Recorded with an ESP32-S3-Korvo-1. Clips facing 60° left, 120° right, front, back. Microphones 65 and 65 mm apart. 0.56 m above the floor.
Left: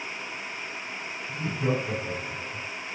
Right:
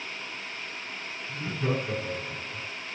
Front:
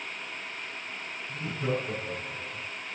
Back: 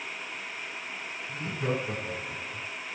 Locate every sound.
1.3 s laughter: 120° left, 4.5 m; by 2.6 s 130° left, 6 m